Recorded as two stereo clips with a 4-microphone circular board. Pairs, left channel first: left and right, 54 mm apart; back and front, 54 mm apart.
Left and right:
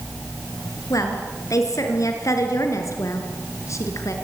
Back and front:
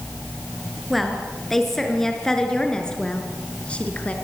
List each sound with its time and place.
0.9 s a woman speaking: 90° left, 5.5 m; by 4.2 s 115° left, 4.5 m